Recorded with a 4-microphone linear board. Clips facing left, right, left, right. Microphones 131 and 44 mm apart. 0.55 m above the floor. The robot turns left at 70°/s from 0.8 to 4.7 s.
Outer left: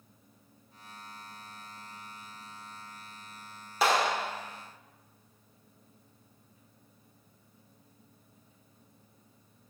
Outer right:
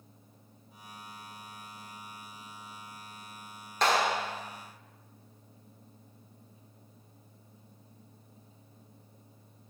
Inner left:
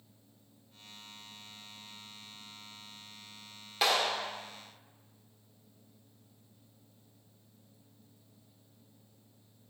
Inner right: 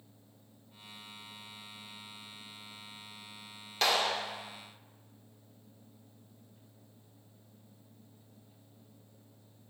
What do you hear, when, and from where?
3.8 s a clap: 10° left, 1.4 m; by 4.3 s 20° right, 1.4 m